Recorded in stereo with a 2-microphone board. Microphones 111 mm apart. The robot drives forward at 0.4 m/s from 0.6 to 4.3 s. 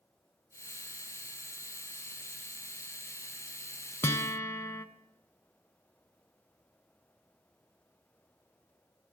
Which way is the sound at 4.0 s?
25° left (ahead or behind).